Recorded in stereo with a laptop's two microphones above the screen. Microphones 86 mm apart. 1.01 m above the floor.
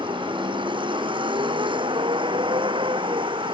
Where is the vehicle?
70° right (ahead or behind); by 3.5 s 75° right (ahead or behind).